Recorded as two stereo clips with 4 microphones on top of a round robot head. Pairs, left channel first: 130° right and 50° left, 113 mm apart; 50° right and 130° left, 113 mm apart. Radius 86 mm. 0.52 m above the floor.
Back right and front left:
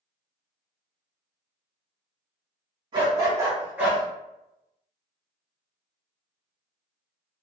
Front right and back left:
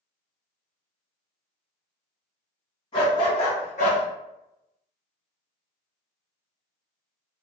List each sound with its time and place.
2.9 s a dog barking: straight ahead, 1.2 m; by 4.0 s 40° right, 0.9 m